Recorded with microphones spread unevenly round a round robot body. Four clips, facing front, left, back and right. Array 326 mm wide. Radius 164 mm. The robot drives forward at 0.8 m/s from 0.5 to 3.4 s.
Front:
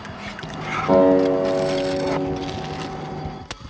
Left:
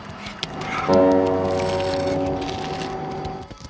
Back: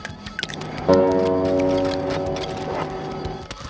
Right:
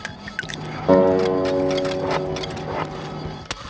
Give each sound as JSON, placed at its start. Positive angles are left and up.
{"t": 0.9, "sound": "a guitar", "azimuth_deg": -150, "distance_m": 1.8}